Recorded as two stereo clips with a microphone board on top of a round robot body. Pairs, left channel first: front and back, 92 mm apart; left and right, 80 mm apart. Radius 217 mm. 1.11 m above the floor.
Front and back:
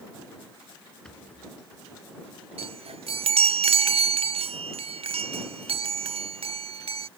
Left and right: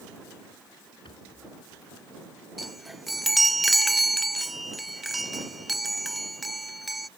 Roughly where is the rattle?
Left.